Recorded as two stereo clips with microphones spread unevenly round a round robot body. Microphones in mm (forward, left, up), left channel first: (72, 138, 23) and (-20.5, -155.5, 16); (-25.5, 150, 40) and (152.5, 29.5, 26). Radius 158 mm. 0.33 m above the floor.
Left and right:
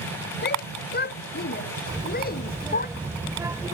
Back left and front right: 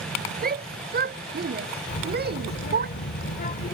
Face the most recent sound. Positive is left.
turn(degrees=175)